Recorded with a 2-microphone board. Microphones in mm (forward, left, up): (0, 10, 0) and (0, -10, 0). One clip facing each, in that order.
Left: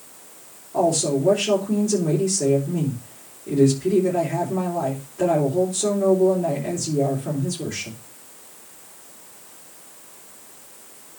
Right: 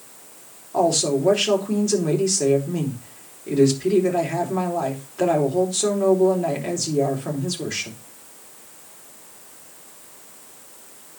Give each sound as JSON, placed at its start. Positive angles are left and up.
{"t": 0.7, "sound": "a woman speaking", "side_deg": -55, "distance_m": 3.5}